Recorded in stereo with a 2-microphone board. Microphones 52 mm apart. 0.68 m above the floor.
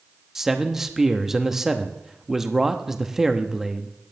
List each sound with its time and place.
0.3 s a man speaking: 10° right (ahead or behind), 0.8 m